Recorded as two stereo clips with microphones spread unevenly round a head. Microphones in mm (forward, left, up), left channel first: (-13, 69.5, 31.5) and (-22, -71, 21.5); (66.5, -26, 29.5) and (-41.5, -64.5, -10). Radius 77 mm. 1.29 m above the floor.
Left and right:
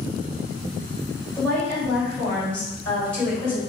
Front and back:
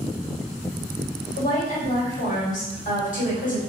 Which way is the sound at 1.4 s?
5° left.